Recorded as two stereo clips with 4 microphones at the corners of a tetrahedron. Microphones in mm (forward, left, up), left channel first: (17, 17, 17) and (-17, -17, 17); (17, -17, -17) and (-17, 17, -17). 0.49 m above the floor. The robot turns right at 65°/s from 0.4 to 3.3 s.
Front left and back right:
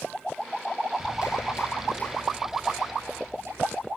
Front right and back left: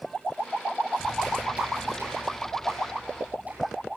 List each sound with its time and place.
1.0 s a clap: 35° left, 8 m; by 3.9 s 170° right, 8 m